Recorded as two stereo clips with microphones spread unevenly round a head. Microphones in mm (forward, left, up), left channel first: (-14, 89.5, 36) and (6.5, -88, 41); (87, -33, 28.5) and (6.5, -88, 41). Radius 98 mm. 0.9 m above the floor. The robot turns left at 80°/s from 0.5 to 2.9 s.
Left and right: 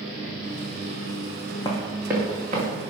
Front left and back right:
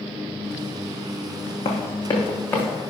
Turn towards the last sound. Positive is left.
turn(degrees=-60)